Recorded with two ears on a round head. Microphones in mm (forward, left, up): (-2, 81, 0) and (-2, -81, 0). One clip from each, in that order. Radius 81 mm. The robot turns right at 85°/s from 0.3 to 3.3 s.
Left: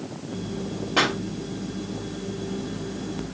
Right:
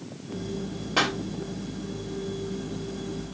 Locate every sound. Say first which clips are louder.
1.0 s a pop: left 3 dB; 15° right (ahead or behind), 2 m; by 1.2 s centre (ahead or behind), 2 m